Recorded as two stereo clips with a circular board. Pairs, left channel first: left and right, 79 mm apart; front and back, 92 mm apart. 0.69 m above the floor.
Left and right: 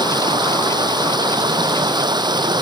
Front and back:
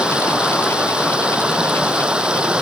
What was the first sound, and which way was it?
Running water, 100° right.